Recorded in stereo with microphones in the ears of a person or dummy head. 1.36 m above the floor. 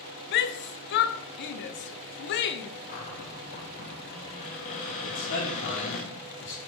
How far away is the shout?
About 0.6 m.